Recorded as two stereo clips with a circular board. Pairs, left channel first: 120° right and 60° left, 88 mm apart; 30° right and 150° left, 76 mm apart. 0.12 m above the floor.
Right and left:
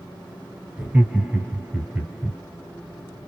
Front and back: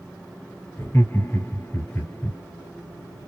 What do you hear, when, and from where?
0.8 s laughter: straight ahead, 1.5 m